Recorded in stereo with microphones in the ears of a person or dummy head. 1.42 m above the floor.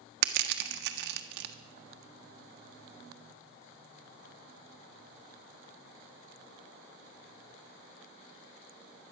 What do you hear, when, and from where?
0.2 s crushing: 65° right (ahead or behind), 1.5 m